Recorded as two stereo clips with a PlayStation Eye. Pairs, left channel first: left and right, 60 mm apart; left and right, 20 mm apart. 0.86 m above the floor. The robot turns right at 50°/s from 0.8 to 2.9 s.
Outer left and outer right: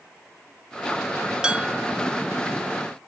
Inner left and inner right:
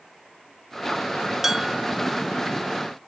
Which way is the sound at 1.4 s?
15° right (ahead or behind).